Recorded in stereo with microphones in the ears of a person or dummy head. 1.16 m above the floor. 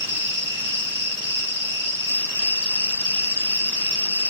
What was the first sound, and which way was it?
An insect, 10° right (ahead or behind).